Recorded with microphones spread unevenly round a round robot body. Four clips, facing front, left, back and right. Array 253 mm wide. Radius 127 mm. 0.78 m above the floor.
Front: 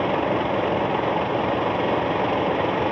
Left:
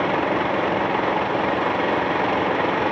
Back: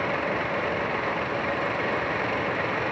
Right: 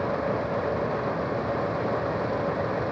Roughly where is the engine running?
Ahead left.